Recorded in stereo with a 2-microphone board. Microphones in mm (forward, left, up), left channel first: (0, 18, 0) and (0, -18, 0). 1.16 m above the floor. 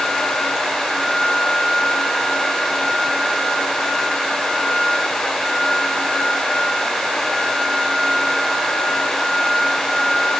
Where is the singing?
No singing in this recording.